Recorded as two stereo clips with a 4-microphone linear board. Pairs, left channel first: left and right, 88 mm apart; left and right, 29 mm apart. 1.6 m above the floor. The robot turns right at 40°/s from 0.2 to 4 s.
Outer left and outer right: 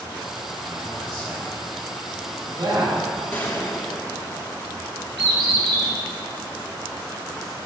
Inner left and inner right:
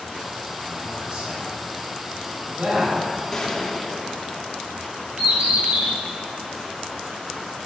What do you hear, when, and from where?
0.7 s a man speaking: 40° right (ahead or behind), 4 m; by 3.0 s 50° right (ahead or behind), 4 m
3.3 s a gunshot: 20° left (ahead or behind), 1.3 m; by 4.7 s 35° left (ahead or behind), 1.3 m
5.2 s a bird: 75° right (ahead or behind), 3 m